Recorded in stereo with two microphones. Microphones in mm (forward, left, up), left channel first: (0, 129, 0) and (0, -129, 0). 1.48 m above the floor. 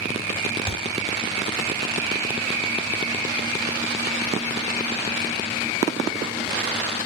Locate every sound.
0.7 s a thud: 20° left (ahead or behind), 1.1 m